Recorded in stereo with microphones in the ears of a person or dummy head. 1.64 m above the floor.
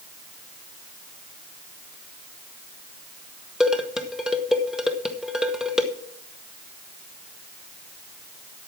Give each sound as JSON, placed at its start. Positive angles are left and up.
{"t": 3.6, "sound": "dishes clattering", "side_deg": 0, "distance_m": 1.2}